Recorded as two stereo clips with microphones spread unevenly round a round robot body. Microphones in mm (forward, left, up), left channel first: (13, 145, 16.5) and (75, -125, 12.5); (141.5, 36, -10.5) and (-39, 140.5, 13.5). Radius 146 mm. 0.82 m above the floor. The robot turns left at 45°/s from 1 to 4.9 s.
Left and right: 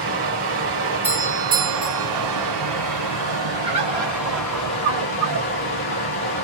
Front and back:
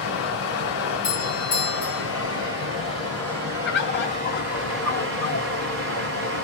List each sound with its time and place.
0.0 s running water: 20° right, 1.5 m; by 6.4 s 165° left, 1.5 m
1.0 s a doorbell: 5° right, 1.1 m; by 2.1 s 50° right, 1.1 m
3.6 s a bird: 5° right, 0.9 m; by 5.5 s 60° right, 0.9 m